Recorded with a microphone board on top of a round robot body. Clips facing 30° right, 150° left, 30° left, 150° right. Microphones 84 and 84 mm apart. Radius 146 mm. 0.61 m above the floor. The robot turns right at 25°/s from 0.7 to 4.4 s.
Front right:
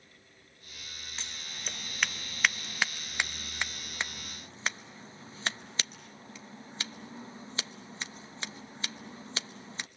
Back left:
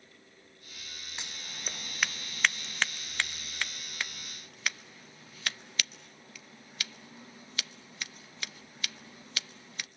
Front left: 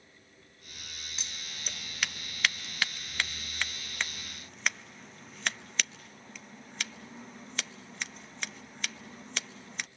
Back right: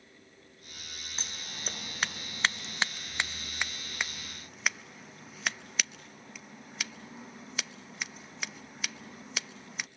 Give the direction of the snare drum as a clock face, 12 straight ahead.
I don't hear a snare drum.